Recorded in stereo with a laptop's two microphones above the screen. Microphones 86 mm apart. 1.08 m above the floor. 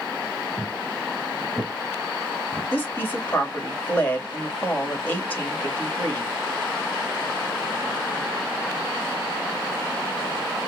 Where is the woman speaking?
20° left (ahead or behind), 2.5 m.